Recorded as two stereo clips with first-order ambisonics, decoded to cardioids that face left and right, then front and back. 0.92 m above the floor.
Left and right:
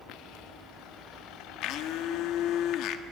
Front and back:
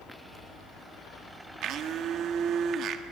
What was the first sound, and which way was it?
A blender, 125° left.